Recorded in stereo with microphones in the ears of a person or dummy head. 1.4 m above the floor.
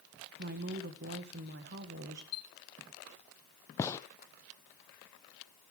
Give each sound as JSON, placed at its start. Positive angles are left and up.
{"t": 0.4, "sound": "a woman speaking", "side_deg": -55, "distance_m": 1.4}
{"t": 2.3, "sound": "a chime", "side_deg": 75, "distance_m": 1.4}
{"t": 3.8, "sound": "a gunshot", "side_deg": 15, "distance_m": 0.6}